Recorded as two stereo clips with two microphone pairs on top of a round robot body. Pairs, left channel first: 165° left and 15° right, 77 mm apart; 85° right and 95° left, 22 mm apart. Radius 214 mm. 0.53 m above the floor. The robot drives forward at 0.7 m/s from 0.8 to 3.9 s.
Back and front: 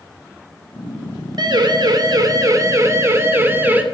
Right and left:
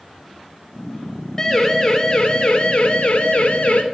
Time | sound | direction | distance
1.4 | a siren | 25° right | 3 m